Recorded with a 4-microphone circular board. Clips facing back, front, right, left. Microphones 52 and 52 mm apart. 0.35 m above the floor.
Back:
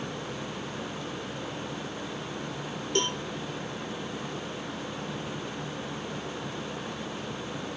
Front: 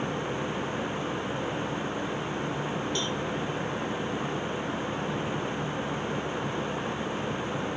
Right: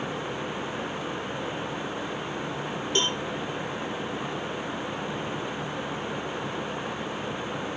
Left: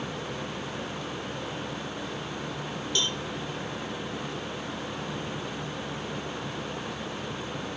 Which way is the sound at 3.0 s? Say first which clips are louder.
Back 2 dB, right 4 dB; 145° right.